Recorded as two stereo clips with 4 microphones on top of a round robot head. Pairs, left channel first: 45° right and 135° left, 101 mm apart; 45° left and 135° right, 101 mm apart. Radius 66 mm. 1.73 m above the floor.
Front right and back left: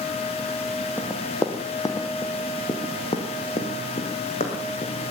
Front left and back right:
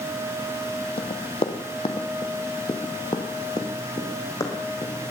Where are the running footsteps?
25° left, 2 m; by 5.0 s 15° right, 4 m.